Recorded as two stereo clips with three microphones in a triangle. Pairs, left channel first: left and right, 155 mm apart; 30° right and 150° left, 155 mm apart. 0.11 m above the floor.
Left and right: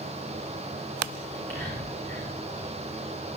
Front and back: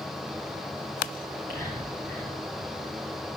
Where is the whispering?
170° left, 7.5 m.